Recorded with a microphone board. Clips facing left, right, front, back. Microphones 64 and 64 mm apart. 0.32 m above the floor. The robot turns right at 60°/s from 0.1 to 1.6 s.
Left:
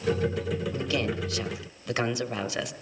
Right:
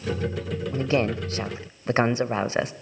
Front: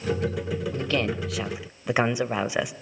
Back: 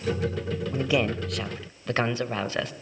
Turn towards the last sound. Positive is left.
turn(degrees=-70)